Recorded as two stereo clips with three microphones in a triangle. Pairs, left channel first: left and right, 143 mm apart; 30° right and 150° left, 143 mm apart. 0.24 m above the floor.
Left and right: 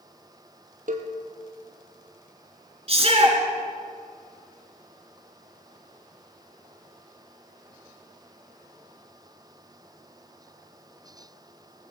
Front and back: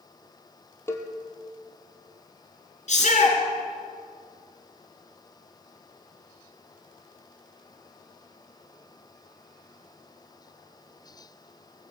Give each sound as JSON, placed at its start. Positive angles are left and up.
{"t": 0.9, "sound": "a cowbell", "azimuth_deg": -100, "distance_m": 1.8}
{"t": 2.9, "sound": "a shout", "azimuth_deg": -50, "distance_m": 3.5}